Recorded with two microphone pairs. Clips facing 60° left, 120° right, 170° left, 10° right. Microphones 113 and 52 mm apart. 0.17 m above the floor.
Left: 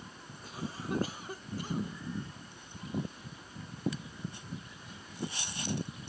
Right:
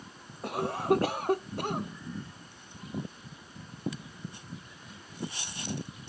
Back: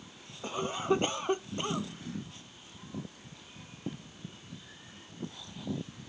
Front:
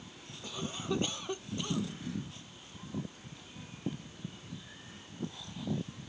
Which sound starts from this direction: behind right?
A cough, at 0.4 s.